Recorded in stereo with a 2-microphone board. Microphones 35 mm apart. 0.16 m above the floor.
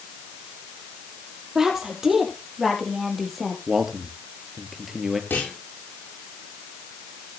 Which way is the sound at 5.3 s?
75° left (ahead or behind).